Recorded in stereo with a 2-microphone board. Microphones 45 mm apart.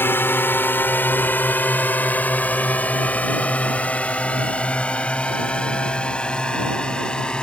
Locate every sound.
0.0 s a drone: 55° left (ahead or behind); by 7.4 s 20° left (ahead or behind)